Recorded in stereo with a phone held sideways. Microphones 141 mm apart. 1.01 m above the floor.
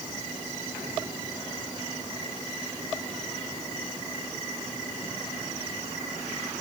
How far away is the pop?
I don't hear a pop.